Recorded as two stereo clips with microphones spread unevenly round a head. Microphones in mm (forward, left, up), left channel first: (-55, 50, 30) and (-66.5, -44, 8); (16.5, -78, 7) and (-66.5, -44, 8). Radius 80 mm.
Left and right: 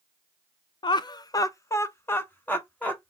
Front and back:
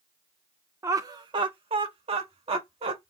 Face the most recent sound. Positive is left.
turn(degrees=160)